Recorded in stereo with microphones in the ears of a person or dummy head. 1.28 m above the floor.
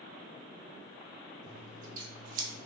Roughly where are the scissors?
Right.